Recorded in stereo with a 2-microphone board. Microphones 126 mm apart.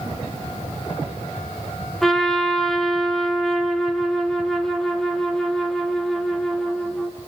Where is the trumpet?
5° left (ahead or behind), 1.7 m.